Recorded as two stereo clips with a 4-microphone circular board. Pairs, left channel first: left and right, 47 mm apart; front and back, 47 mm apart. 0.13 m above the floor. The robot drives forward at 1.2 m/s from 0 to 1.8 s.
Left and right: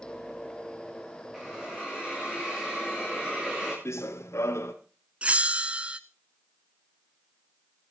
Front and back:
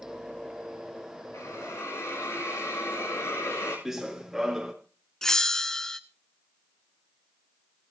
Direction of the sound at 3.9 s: 95° left.